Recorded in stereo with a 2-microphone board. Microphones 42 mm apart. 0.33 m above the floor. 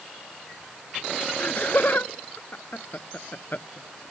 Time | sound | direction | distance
1.4 | laughter | 50° left (ahead or behind) | ?